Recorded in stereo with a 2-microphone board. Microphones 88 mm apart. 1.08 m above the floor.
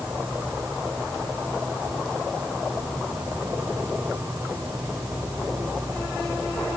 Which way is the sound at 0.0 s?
40° right (ahead or behind).